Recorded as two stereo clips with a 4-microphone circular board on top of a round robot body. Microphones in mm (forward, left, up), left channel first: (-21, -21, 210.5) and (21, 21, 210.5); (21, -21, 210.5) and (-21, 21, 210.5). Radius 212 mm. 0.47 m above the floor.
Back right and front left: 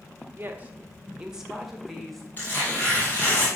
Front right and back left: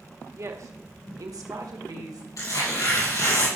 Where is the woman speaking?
100° left, 1.6 m; by 2.3 s 140° left, 3 m.